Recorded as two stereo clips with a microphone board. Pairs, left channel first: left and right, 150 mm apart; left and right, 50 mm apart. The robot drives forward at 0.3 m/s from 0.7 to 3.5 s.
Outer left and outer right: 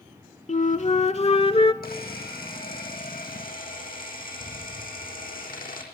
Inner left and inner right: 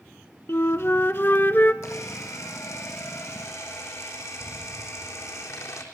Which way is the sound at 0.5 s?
50° left (ahead or behind).